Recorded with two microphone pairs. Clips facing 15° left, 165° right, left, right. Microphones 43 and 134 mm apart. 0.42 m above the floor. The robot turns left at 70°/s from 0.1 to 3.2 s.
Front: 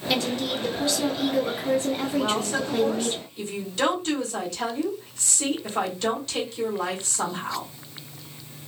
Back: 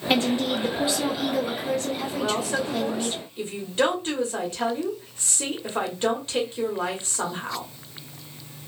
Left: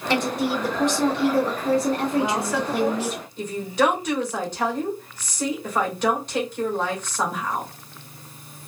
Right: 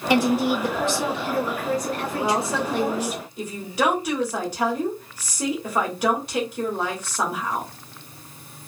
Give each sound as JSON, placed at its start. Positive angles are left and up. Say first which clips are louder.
{"t": 0.1, "sound": "a woman speaking", "louder": "back 4 dB, right 4 dB", "azimuth_deg": -160, "distance_m": 0.8}
{"t": 2.1, "sound": "a woman speaking", "louder": "back 1 dB, left 1 dB", "azimuth_deg": -90, "distance_m": 1.3}